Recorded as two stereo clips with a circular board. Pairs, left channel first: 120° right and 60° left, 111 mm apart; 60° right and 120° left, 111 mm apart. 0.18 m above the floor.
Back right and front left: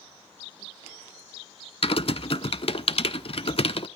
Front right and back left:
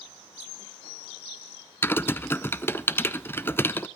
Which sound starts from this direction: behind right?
Typing on a keyboard, at 1.8 s.